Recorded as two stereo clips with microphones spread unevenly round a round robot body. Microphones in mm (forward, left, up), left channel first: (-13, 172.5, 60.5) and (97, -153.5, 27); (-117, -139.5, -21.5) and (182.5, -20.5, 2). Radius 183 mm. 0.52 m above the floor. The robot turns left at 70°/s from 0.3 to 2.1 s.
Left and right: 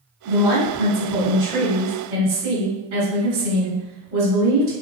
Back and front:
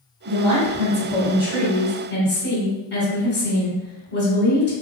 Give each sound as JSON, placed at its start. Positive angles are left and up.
{"t": 0.3, "sound": "a woman speaking", "azimuth_deg": 15, "distance_m": 1.8}